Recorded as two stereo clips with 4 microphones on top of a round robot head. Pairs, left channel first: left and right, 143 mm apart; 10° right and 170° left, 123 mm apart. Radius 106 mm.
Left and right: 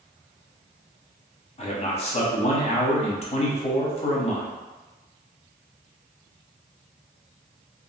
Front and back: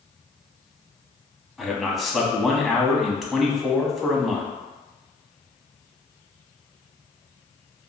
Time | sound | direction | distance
1.6 | a man speaking | 85° left | 0.8 m